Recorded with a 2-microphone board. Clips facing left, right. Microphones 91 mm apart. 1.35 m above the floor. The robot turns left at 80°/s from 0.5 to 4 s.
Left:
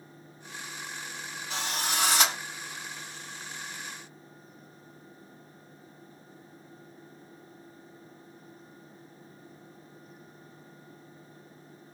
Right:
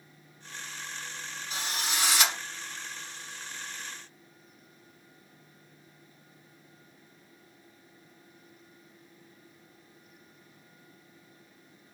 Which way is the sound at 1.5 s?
100° left.